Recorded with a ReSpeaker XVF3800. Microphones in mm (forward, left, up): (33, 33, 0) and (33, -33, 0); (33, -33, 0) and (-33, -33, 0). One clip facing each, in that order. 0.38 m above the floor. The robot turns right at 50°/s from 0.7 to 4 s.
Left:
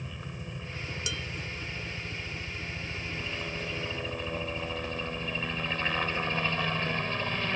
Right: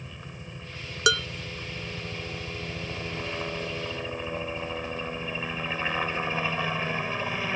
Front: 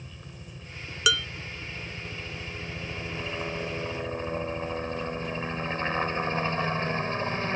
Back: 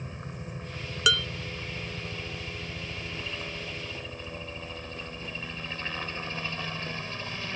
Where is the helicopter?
175° left; by 7.6 s 20° right.